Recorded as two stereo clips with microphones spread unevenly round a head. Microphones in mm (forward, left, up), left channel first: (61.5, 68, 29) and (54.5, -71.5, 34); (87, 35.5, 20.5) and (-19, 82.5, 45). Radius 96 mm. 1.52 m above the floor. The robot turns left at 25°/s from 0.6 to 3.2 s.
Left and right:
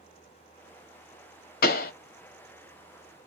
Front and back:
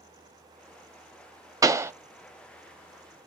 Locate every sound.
1.6 s a pop: 90° left, 0.7 m; by 1.9 s 85° left, 0.7 m